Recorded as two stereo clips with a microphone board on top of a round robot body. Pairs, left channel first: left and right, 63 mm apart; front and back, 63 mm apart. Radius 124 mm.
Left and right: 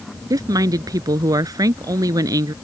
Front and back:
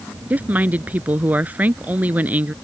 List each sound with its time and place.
0.3 s a woman speaking: 115° right